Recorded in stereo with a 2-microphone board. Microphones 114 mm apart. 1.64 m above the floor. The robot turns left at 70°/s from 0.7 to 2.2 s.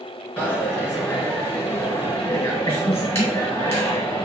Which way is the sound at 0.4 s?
10° left (ahead or behind).